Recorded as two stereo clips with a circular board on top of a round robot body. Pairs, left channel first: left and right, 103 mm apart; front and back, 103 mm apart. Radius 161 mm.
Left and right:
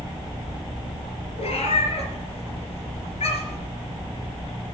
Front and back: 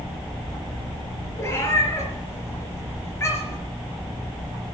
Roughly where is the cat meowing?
Ahead left.